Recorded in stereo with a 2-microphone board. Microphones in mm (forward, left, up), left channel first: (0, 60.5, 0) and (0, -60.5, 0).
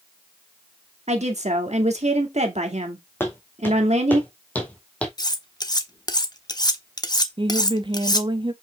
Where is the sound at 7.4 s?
40° right (ahead or behind), 0.7 m.